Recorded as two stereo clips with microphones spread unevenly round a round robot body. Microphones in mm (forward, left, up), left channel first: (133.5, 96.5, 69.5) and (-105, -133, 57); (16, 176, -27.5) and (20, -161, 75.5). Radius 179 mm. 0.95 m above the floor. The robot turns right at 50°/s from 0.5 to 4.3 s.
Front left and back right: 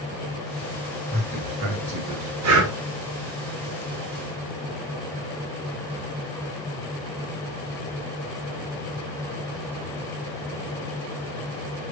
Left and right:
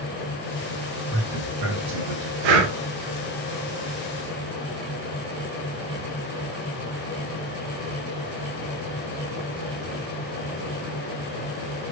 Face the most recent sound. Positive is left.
turn(degrees=0)